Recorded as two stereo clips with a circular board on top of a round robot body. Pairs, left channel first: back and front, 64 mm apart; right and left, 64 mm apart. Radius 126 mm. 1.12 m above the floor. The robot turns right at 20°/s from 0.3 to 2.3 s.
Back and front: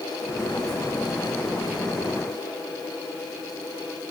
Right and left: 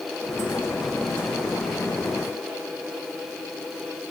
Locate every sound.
Only background noise.